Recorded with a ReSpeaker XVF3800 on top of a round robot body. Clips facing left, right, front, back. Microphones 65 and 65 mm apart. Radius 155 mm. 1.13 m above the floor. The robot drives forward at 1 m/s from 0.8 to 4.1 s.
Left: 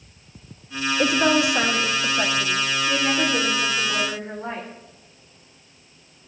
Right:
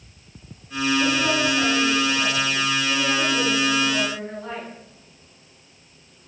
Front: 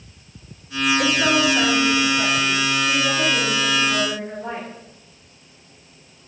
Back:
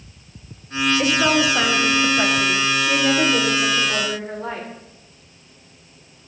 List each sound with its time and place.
1.0 s a woman speaking: 95° left, 1.6 m; by 4.7 s 155° left, 3.5 m